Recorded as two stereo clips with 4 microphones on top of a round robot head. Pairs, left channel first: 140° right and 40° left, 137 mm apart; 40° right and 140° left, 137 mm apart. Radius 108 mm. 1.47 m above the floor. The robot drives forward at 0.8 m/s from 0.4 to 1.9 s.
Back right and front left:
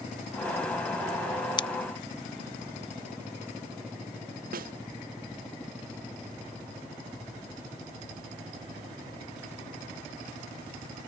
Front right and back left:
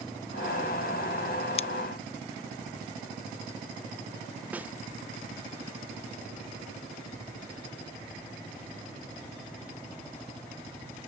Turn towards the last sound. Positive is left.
turn(degrees=60)